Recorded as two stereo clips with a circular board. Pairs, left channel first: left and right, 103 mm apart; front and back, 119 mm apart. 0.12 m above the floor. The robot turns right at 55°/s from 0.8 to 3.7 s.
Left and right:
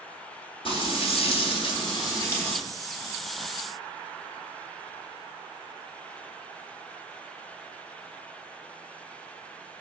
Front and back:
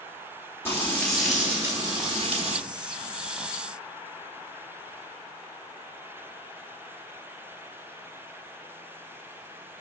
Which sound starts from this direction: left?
Frying, at 0.7 s.